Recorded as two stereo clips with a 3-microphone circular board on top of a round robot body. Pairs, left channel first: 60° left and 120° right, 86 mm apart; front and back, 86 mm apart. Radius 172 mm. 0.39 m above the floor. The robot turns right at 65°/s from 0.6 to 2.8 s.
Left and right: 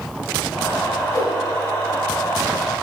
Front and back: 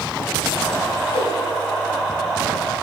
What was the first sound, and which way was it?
A whoosh, straight ahead.